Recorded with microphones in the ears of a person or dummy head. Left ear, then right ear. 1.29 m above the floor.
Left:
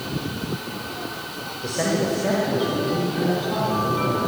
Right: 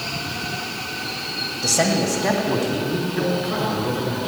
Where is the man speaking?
35° right (ahead or behind), 2 m.